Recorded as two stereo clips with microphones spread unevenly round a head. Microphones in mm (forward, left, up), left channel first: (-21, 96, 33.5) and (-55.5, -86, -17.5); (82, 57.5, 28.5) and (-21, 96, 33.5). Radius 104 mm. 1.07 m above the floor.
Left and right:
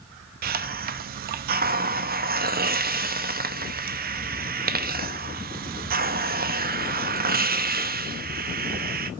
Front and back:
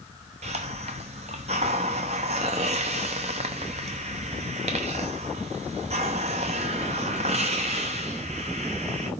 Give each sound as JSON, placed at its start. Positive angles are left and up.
{"t": 0.4, "sound": "a hiss", "azimuth_deg": -145, "distance_m": 0.8}